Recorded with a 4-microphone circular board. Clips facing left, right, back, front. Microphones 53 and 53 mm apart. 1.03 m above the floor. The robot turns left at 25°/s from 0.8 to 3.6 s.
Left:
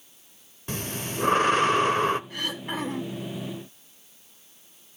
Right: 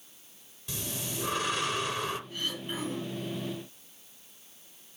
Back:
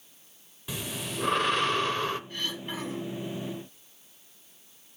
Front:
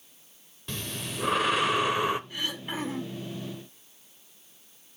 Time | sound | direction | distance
0.7 | breathing | 100° left | 0.9 m
2.3 | throat clearing | 80° left | 2.5 m